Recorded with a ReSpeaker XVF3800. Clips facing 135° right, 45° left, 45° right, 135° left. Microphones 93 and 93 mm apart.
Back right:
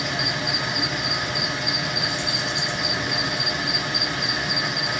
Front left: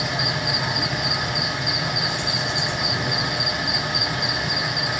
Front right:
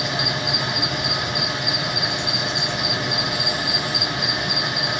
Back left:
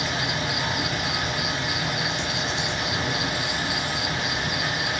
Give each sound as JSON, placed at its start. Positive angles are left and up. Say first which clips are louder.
{"t": 0.0, "sound": "an insect", "louder": "front left 1 dB, front right 2 dB", "azimuth_deg": 80, "distance_m": 4.5}